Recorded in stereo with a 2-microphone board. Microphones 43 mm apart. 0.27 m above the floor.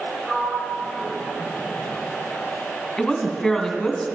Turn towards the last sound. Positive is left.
turn(degrees=0)  # may be behind; listen again after turning